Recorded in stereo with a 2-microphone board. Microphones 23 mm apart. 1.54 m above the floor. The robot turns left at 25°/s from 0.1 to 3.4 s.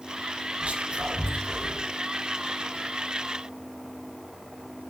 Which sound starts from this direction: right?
Whispering, at 0.6 s.